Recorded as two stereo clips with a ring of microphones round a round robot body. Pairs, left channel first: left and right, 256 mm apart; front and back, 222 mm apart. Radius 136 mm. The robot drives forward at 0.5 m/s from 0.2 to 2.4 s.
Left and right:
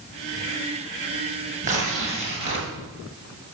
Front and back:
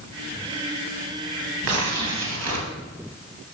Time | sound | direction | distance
1.6 | tearing paper | 155° right | 2 m